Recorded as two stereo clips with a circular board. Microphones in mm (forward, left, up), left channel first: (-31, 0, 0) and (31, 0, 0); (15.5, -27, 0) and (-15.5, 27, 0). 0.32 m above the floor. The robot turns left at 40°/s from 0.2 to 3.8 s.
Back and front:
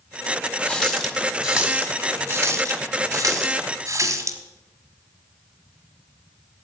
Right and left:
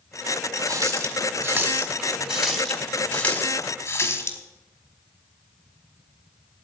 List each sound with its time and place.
0.7 s a running tap: 110° left, 1.5 m; by 4.4 s 15° right, 1.5 m